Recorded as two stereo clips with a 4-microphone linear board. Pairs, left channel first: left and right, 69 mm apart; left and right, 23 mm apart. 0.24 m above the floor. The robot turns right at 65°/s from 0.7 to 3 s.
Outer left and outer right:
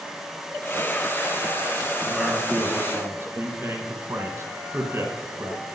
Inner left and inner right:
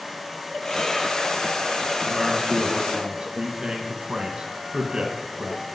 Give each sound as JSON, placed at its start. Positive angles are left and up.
{"t": 2.0, "sound": "a man speaking", "azimuth_deg": 180, "distance_m": 1.5}